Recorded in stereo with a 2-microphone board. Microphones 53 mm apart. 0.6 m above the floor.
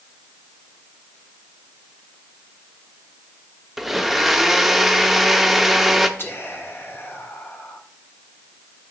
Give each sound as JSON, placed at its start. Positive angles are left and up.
{"t": 3.8, "sound": "a blender", "side_deg": 0, "distance_m": 0.5}
{"t": 6.2, "sound": "whispering", "side_deg": 45, "distance_m": 1.5}